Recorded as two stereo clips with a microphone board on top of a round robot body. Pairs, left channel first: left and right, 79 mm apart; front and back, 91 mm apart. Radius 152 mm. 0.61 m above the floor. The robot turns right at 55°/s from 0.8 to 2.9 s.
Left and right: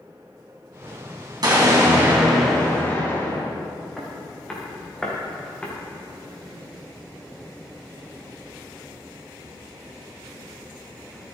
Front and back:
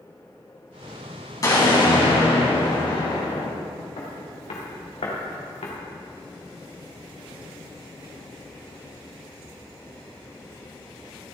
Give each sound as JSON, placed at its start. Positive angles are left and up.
{"t": 1.4, "sound": "an explosion", "azimuth_deg": -55, "distance_m": 3.5}
{"t": 4.0, "sound": "footsteps", "azimuth_deg": 5, "distance_m": 5.0}